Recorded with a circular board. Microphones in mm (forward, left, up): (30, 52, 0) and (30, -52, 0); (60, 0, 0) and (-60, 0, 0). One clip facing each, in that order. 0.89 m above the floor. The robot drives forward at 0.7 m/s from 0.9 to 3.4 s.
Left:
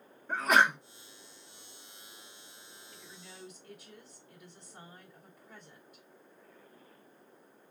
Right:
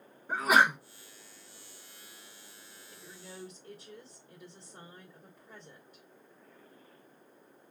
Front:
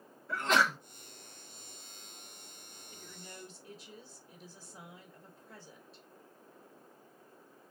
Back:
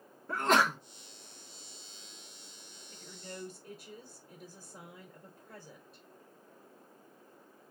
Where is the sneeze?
170° right, 1.0 m.